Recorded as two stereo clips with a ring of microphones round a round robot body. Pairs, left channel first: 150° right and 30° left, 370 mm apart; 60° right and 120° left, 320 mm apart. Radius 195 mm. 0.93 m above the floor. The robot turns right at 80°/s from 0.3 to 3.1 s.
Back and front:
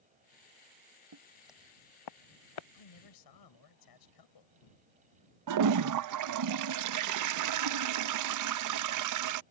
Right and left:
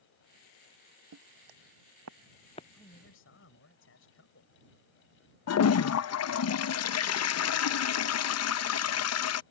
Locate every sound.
1.1 s footsteps: 80° left; by 2.6 s 130° right
2.7 s a man speaking: 145° right; by 4.5 s 120° right
5.5 s a toilet flushing: 15° right